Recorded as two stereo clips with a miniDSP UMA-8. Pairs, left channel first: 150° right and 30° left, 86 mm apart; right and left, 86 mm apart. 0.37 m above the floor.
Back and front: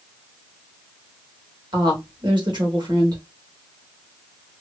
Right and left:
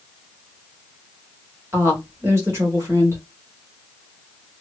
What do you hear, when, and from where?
1.7 s a woman speaking: 35° left, 1.4 m